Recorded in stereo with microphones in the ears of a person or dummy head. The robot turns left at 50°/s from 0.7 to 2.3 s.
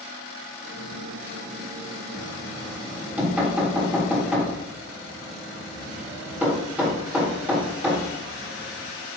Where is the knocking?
Centre (ahead or behind), 3.5 m; by 8.9 s 10° right (ahead or behind), 3.5 m.